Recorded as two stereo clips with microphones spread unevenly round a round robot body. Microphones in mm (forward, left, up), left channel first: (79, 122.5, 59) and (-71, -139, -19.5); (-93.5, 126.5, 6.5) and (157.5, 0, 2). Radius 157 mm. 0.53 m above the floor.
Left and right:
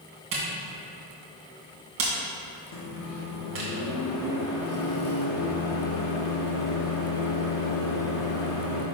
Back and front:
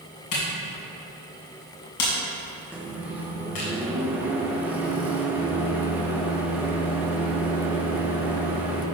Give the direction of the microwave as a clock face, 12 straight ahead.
10 o'clock.